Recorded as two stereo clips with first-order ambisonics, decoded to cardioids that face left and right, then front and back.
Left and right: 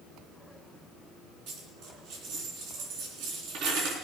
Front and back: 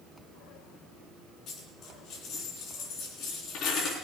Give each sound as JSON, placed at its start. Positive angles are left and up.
{"t": 1.5, "sound": "a dropped coin", "azimuth_deg": -60, "distance_m": 3.5}